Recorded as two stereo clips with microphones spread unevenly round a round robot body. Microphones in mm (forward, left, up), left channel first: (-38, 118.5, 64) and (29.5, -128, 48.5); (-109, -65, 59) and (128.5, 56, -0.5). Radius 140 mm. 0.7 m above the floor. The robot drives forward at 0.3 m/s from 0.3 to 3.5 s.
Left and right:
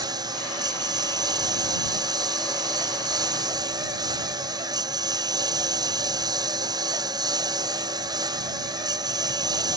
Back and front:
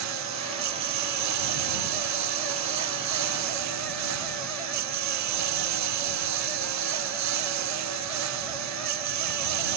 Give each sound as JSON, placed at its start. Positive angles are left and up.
{"t": 0.0, "sound": "a lawn mower", "azimuth_deg": 0}